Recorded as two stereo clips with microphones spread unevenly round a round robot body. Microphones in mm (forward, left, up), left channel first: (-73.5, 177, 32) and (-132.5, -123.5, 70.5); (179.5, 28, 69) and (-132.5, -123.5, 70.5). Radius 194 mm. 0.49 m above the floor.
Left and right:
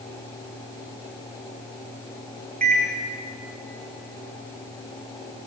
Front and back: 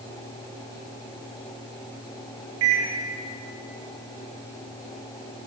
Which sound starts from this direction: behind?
A microwave, at 2.6 s.